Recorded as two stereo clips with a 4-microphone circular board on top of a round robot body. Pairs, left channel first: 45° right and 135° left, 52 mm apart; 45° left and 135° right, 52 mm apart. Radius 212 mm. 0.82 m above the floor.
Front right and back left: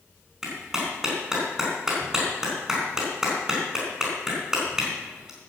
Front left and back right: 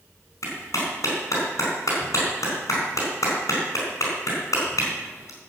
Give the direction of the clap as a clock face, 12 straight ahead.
10 o'clock.